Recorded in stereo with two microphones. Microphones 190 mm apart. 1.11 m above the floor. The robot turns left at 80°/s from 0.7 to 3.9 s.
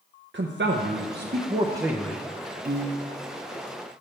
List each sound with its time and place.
0.3 s a man speaking: 75° right, 0.5 m; by 2.2 s 165° left, 0.5 m
2.6 s a piano: 55° right, 0.6 m; by 3.2 s 100° right, 0.6 m